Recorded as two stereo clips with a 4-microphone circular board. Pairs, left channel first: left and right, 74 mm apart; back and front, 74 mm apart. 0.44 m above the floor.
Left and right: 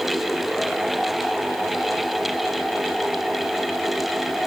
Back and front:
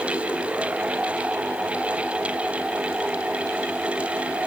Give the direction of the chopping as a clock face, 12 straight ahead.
No chopping in this recording.